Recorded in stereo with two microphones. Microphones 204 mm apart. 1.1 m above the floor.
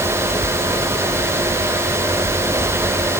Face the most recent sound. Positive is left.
No sound to turn to.